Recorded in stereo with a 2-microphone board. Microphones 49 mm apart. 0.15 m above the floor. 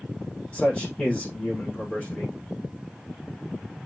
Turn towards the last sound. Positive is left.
turn(degrees=25)  # may be behind; listen again after turning